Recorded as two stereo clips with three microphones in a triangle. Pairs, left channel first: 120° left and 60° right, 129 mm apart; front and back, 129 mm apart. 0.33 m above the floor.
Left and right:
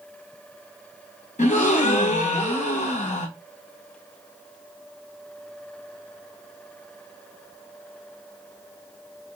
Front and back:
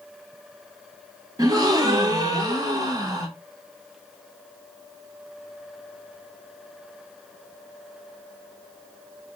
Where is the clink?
No clink in this recording.